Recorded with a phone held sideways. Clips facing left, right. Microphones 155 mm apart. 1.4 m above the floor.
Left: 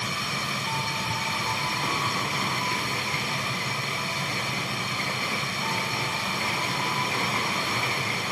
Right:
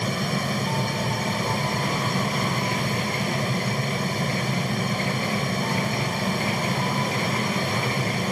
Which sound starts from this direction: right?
A fan, at 0.0 s.